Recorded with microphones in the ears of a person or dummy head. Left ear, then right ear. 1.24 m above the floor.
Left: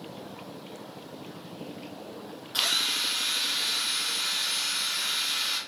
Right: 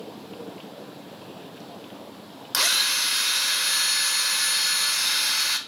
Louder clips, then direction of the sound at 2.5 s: Right 4 dB; 45° right (ahead or behind).